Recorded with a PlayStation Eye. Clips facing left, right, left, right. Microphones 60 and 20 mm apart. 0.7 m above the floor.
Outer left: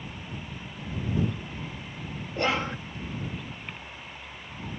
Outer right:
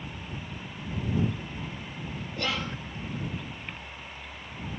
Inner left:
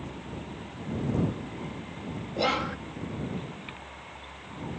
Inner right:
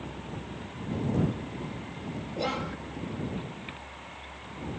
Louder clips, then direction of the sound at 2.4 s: Outer left 5 dB, inner left 5 dB; 35° left (ahead or behind).